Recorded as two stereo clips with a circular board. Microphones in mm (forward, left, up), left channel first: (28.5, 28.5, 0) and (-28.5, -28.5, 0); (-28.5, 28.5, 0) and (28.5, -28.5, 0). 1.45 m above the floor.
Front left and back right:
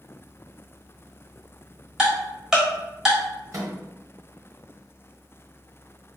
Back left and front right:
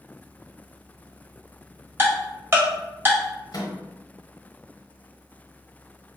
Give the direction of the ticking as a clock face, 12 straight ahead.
2 o'clock.